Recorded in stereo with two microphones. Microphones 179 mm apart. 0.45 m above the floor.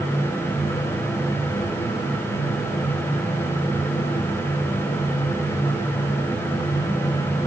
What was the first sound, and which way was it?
Only background noise.